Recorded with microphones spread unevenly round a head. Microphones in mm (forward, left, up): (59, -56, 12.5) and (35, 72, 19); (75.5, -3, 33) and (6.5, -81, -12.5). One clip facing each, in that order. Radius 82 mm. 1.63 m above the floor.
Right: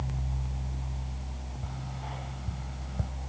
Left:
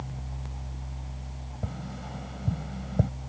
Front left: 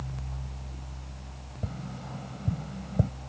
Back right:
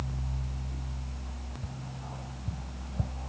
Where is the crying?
I don't hear crying.